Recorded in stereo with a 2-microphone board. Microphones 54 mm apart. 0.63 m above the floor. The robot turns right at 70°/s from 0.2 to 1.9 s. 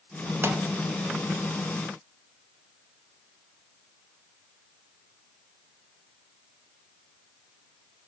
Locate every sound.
0.4 s a pop: 50° right (ahead or behind), 0.9 m; by 0.6 s 55° right (ahead or behind), 0.9 m